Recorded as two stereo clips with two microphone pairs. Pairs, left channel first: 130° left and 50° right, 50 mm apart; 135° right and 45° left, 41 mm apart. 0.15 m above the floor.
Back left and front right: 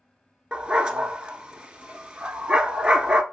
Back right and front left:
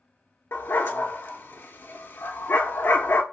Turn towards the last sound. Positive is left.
turn(degrees=-120)